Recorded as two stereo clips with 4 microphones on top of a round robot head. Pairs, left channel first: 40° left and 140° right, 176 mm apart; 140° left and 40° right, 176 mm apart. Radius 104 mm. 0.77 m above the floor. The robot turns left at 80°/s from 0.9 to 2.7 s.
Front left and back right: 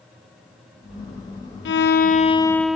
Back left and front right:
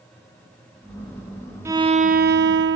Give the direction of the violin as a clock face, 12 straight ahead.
11 o'clock.